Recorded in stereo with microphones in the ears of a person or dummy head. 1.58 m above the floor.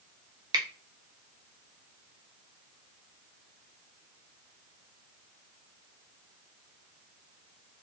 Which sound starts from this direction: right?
A finger snap, at 0.5 s.